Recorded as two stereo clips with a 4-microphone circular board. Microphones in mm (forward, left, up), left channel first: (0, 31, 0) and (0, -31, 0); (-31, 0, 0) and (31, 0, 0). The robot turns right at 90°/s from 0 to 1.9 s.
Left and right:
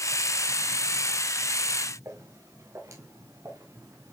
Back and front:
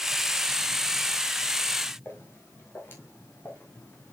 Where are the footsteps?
125° right, 6 m; by 4.1 s 120° right, 4 m.